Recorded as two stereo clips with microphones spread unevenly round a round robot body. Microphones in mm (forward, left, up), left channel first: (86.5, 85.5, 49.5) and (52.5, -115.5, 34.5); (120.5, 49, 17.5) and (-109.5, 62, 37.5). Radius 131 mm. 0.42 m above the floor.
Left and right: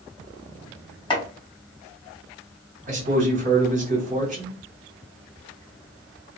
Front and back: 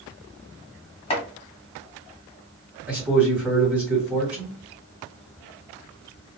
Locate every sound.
1.1 s chopping: 25° left, 1.4 m
2.9 s a man speaking: 95° right, 1.3 m